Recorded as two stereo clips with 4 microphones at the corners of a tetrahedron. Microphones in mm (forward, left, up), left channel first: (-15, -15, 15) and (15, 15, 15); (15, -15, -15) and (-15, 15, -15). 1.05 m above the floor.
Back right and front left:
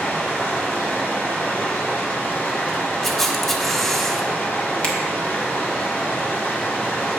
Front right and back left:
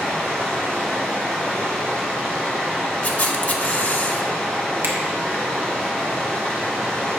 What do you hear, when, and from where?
0.0 s running water: 105° right, 2 m
3.0 s a camera shutter: 60° right, 0.6 m
4.8 s a finger snap: 160° left, 1.1 m